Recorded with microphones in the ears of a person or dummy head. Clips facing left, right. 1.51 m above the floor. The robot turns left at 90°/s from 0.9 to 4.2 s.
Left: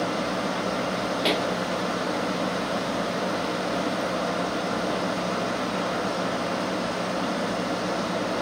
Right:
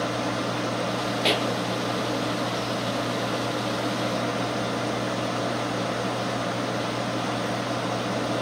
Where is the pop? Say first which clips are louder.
Even; centre (ahead or behind), 0.6 m; by 1.5 s 20° right (ahead or behind), 0.6 m.